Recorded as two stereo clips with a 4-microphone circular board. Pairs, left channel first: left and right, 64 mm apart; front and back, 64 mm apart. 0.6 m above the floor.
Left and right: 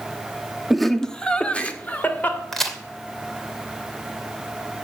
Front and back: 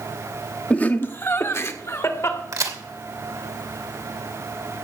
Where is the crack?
175° left, 2.5 m.